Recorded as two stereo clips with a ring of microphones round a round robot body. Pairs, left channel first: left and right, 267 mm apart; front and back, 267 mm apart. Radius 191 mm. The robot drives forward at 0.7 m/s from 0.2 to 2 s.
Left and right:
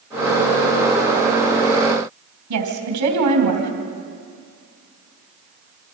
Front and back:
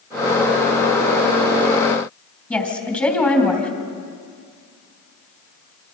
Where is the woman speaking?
80° right, 4 m.